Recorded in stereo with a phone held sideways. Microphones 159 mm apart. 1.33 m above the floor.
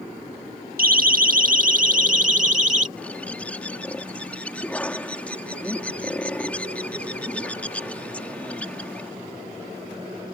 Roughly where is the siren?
Right.